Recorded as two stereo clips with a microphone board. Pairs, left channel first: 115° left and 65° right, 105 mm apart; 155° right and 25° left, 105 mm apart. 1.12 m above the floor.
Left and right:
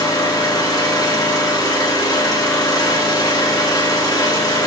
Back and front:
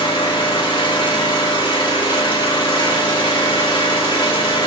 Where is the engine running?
165° left, 1.6 m.